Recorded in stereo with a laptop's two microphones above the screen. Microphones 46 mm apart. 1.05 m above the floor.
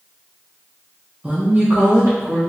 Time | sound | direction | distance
1.2 | a woman speaking | 20° right (ahead or behind) | 0.6 m